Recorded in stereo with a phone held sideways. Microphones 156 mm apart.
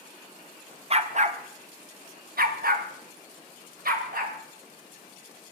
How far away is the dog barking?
About 1.2 m.